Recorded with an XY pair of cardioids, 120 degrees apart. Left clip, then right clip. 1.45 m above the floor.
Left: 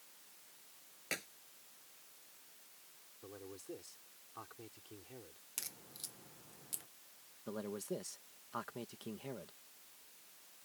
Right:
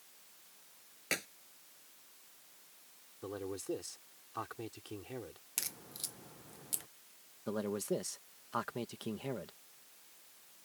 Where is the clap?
25° right.